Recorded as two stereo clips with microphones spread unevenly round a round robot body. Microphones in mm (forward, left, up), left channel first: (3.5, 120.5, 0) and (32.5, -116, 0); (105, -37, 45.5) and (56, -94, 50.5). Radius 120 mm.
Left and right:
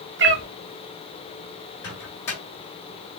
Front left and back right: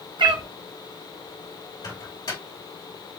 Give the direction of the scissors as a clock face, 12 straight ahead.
I don't hear scissors.